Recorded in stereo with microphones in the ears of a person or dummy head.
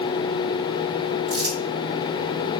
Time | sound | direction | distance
1.3 | crumpling | 65° right (ahead or behind) | 2.5 m